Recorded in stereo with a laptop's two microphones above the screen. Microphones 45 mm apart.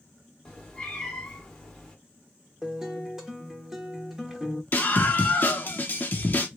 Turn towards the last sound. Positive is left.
turn(degrees=40)  # may be behind; listen again after turning